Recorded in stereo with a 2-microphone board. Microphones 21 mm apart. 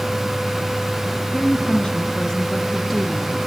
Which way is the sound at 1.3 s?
50° left (ahead or behind).